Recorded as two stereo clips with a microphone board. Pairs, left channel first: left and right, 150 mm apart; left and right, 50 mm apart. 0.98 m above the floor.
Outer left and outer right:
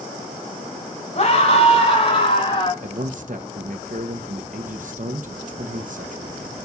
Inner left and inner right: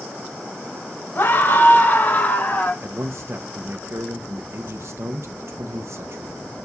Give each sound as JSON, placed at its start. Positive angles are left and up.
{"t": 1.1, "sound": "a scream", "side_deg": 45, "distance_m": 5.0}
{"t": 2.8, "sound": "a man speaking", "side_deg": -60, "distance_m": 0.7}